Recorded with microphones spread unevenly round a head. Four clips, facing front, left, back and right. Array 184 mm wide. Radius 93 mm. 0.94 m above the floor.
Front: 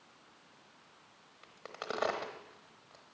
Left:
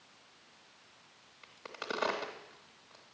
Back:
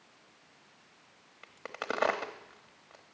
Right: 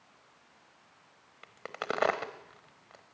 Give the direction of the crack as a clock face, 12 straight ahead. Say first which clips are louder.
Right 5 dB, back 4 dB; 4 o'clock.